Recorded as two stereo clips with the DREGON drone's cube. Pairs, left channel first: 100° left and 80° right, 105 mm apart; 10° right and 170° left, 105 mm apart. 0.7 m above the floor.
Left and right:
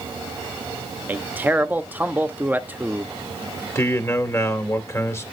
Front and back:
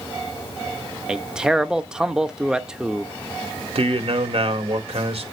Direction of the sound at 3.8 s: 160° left.